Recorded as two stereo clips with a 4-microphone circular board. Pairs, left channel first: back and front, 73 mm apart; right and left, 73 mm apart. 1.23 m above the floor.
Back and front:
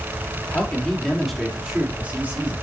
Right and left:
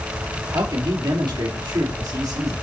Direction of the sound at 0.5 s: 110° left.